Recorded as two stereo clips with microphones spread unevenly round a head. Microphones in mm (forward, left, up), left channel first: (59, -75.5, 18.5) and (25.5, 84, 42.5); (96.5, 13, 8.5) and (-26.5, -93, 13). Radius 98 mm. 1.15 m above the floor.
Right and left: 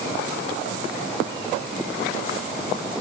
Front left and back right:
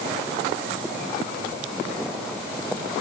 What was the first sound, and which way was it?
Only background noise.